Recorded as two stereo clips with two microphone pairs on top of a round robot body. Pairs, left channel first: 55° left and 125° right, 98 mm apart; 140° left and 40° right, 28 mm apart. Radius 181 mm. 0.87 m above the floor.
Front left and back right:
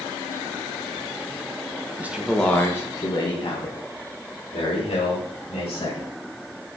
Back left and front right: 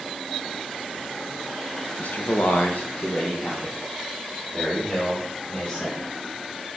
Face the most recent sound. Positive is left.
turn(degrees=75)